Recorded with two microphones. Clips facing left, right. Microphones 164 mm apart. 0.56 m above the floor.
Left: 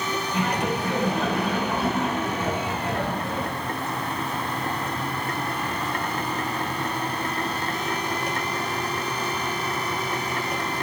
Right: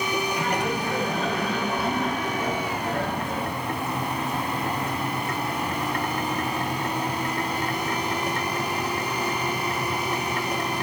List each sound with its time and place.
0.3 s laughter: 80° left, 6 m